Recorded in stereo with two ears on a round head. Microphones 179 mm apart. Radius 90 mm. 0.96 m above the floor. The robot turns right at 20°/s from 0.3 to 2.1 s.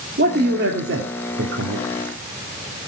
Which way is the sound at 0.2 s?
125° right.